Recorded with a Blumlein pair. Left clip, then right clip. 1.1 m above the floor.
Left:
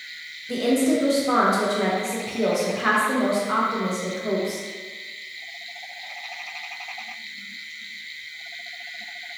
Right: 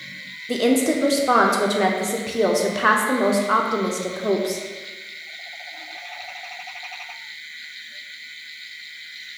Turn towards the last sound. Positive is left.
turn(degrees=-20)